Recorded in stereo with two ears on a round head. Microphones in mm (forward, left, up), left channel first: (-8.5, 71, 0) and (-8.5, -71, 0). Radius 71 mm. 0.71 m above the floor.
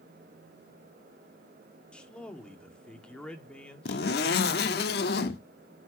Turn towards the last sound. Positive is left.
turn(degrees=65)  # may be behind; listen again after turning